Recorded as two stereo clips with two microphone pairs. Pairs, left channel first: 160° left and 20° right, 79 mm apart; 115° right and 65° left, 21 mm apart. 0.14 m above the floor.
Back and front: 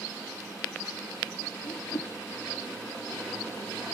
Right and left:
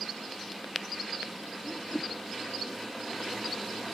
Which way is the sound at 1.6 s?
175° left.